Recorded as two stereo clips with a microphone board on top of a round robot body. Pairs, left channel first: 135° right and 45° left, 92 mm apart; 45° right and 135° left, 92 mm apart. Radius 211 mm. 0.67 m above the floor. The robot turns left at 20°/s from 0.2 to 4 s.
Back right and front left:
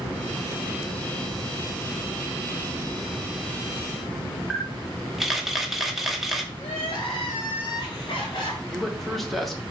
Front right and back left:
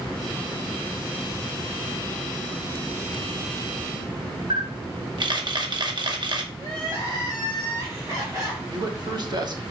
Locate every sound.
4.5 s a camera shutter: 130° left, 1.2 m
6.6 s crying: 165° right, 1.7 m
8.7 s a man speaking: 135° left, 1.4 m